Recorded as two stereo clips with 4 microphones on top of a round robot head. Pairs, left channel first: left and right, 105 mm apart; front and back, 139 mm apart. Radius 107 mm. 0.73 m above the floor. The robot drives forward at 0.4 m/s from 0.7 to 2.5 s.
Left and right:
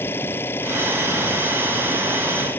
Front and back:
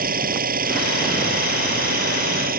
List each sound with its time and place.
0.0 s an engine running: 165° left